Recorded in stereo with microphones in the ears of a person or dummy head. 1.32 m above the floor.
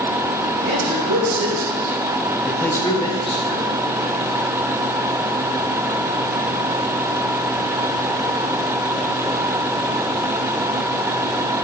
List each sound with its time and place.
0.6 s a man speaking: 60° right (ahead or behind), 1.1 m; by 3.6 s 25° left (ahead or behind), 1.2 m